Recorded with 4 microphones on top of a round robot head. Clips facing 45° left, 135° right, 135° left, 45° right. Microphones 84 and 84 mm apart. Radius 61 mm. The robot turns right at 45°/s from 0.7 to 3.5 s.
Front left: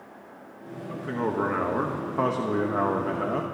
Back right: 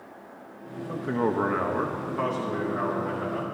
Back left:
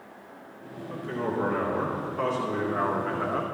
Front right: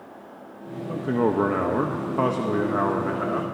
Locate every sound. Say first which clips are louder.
0.9 s a man speaking: back right 2 dB, front right 8 dB; 75° right, 0.9 m; by 3.4 s 40° left, 0.9 m